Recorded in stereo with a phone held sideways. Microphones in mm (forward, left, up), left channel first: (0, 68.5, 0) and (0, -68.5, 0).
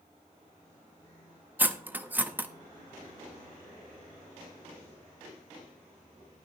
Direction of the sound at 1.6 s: 15° right (ahead or behind).